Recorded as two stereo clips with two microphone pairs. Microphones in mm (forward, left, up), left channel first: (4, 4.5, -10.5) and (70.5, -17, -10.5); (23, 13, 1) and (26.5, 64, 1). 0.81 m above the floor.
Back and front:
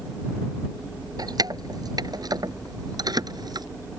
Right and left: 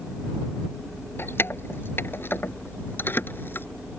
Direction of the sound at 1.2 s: 50° right.